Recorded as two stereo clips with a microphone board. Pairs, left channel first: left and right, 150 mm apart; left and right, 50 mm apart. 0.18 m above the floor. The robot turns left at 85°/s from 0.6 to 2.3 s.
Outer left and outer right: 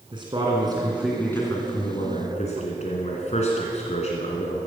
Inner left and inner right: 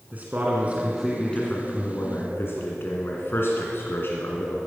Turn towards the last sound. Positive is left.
turn(degrees=80)